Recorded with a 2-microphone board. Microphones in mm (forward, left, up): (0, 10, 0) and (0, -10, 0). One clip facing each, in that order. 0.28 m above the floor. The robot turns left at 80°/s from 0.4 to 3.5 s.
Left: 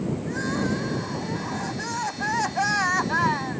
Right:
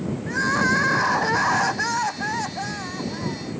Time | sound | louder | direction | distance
0.3 | crying | right 9 dB | 30° right | ?